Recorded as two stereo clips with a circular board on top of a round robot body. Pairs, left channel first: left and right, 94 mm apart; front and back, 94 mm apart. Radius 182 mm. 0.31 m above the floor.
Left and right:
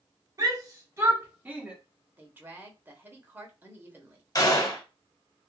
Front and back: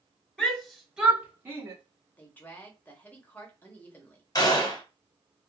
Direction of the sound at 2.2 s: 50° right.